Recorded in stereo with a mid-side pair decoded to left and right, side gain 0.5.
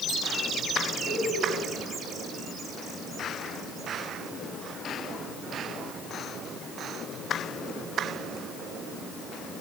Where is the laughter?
50° left, 7 m.